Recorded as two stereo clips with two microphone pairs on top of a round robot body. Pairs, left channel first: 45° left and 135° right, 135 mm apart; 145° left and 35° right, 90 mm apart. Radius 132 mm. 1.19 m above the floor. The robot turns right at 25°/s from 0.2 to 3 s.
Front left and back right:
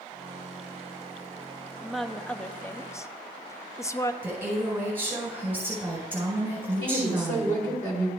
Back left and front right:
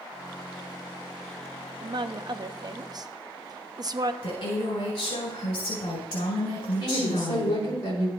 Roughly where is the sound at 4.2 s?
Behind left.